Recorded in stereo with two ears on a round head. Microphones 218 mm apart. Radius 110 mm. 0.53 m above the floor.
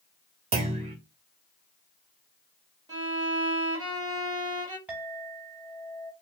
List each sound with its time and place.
0.5 s a clunk: 25° right (ahead or behind), 0.9 m
2.9 s a violin: 15° right (ahead or behind), 1.8 m
4.9 s a clink: 5° right (ahead or behind), 2.5 m